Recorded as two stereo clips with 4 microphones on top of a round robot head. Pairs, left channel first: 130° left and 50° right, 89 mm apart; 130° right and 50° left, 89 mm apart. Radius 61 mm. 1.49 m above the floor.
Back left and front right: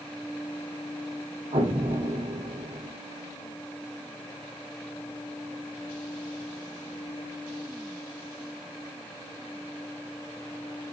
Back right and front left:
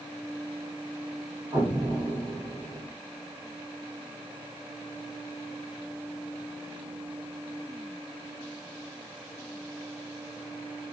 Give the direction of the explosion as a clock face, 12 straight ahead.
12 o'clock.